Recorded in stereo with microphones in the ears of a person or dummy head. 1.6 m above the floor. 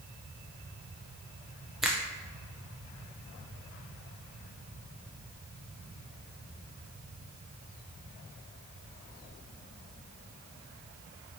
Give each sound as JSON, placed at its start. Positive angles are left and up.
{"t": 1.8, "sound": "a finger snap", "side_deg": 0, "distance_m": 0.5}